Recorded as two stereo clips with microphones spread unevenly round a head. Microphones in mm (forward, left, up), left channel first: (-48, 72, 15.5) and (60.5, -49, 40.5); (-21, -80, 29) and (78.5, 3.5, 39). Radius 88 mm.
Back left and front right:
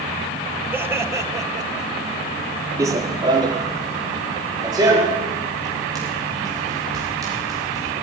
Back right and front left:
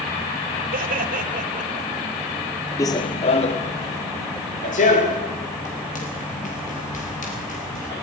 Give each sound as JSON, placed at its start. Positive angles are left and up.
{"t": 0.7, "sound": "laughter", "azimuth_deg": 30, "distance_m": 3.0}
{"t": 2.8, "sound": "running footsteps", "azimuth_deg": -85, "distance_m": 1.0}